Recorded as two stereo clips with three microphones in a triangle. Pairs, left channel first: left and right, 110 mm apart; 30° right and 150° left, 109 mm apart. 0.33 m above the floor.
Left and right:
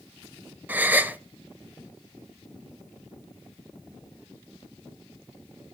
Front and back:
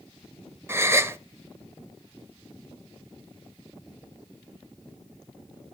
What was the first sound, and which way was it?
A gasp, 155° right.